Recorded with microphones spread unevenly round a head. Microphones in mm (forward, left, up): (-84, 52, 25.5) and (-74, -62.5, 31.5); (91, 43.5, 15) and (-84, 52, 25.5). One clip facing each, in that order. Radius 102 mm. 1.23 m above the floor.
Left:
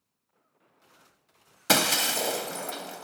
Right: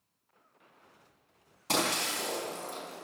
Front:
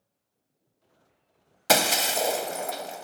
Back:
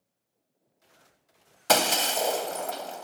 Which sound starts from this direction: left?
Breaking glass, at 1.7 s.